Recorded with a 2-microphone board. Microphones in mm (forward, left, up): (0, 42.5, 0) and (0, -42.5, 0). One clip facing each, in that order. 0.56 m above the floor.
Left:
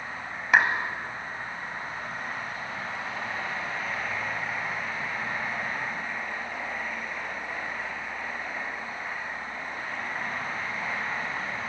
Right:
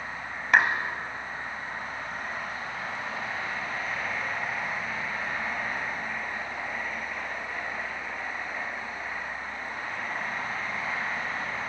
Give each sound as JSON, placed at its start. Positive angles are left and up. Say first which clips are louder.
{"t": 0.5, "sound": "a clap", "louder": "even", "side_deg": 5, "distance_m": 2.5}